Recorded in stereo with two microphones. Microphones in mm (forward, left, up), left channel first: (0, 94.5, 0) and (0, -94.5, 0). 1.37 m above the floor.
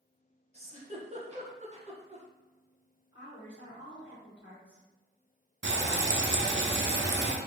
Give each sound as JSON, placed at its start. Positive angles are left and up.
{"t": 0.5, "sound": "a giggle", "side_deg": -35, "distance_m": 0.9}
{"t": 3.1, "sound": "a woman speaking", "side_deg": 80, "distance_m": 0.9}
{"t": 5.6, "sound": "frying", "side_deg": -75, "distance_m": 0.5}